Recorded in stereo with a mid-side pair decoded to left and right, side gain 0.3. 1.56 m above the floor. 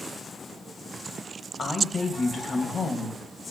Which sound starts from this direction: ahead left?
A woman speaking, at 1.6 s.